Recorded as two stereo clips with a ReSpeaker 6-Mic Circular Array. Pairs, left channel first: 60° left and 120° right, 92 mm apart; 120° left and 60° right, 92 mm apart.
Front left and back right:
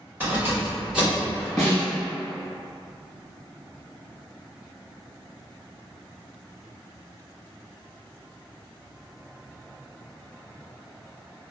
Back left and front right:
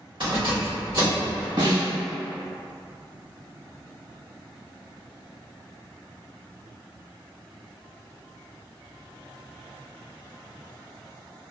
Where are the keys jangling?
55° right, 2.0 m; by 1.5 s 30° right, 1.8 m.